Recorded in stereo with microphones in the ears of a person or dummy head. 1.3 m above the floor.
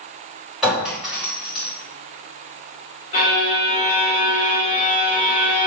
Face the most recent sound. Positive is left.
turn(degrees=35)  # may be behind; listen again after turning